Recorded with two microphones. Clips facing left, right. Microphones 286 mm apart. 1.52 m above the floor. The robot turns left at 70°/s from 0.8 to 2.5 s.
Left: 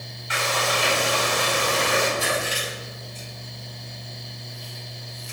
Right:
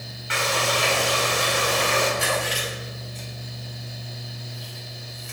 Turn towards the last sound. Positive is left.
turn(degrees=-65)  # may be behind; listen again after turning